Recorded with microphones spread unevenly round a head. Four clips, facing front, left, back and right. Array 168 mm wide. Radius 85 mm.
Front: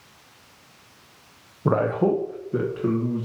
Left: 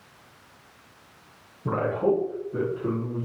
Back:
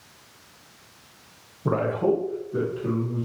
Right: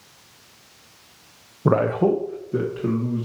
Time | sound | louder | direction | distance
1.6 | a man speaking | right 5 dB, front 2 dB | 75° right | 0.5 m